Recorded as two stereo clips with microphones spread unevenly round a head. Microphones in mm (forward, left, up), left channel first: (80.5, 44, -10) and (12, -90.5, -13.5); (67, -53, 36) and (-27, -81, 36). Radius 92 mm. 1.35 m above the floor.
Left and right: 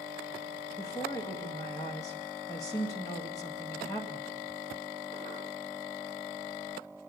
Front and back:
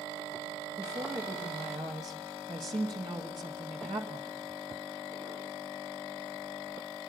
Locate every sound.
0.8 s a woman speaking: 140° left, 2 m